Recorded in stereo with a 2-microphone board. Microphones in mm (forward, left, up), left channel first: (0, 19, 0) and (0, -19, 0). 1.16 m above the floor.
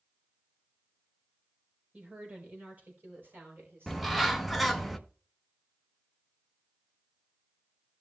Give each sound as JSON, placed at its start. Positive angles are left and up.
{"t": 1.9, "sound": "a woman speaking", "side_deg": -35, "distance_m": 4.5}
{"t": 3.9, "sound": "a bird", "side_deg": 0, "distance_m": 0.9}